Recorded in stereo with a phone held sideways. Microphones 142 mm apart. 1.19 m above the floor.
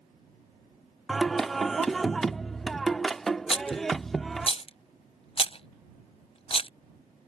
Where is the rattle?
40° left (ahead or behind).